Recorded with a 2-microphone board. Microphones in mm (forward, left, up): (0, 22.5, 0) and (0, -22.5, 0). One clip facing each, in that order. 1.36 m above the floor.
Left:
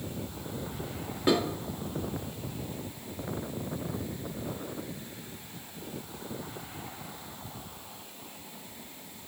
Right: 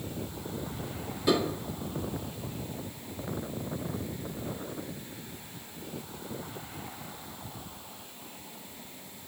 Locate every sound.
1.3 s dishes clattering: 45° left (ahead or behind), 1.5 m